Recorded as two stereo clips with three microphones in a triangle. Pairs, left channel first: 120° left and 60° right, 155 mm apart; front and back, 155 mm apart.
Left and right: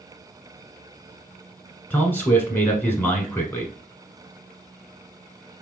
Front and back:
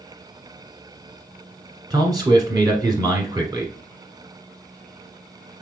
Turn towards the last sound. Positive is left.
turn(degrees=180)